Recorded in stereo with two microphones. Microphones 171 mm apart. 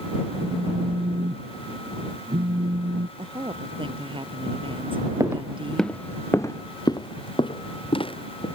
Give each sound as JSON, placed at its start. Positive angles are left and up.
{"t": 0.4, "sound": "a phone buzzing", "side_deg": -65}
{"t": 3.2, "sound": "a woman speaking", "side_deg": -30}
{"t": 5.2, "sound": "footsteps", "side_deg": -20}